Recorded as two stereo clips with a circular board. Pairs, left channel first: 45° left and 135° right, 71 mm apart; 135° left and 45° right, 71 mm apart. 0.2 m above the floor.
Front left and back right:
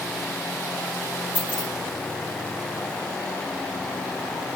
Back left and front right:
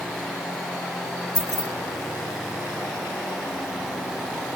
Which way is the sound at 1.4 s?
155° left.